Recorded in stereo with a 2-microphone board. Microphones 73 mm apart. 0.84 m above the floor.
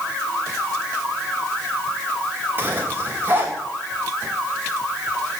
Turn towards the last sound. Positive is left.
turn(degrees=-30)  # may be behind; listen again after turning